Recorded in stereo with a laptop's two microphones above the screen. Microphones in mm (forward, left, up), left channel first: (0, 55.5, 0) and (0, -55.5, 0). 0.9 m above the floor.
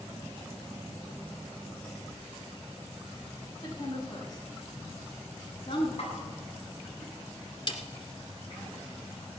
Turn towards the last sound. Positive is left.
turn(degrees=50)  # may be behind; listen again after turning